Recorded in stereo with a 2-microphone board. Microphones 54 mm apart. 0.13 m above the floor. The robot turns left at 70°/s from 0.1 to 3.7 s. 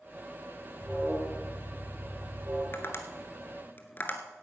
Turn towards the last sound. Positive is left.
turn(degrees=35)  # may be behind; listen again after turning